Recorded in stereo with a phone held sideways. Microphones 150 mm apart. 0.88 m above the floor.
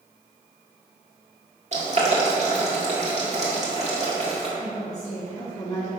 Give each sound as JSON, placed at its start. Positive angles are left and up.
{"t": 1.7, "sound": "boiling", "side_deg": -50, "distance_m": 1.7}
{"t": 4.6, "sound": "a woman speaking", "side_deg": 50, "distance_m": 1.5}